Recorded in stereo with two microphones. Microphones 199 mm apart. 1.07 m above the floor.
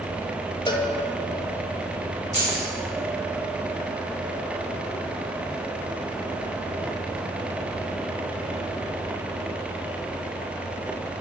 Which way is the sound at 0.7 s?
20° left (ahead or behind).